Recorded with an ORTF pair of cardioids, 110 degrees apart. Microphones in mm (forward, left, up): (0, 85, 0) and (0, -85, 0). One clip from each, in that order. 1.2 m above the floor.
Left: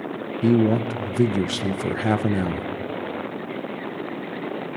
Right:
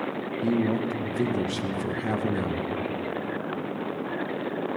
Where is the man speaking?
35° left, 0.6 m.